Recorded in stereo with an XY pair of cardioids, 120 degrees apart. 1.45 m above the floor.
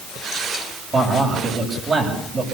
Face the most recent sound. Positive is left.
turn(degrees=-30)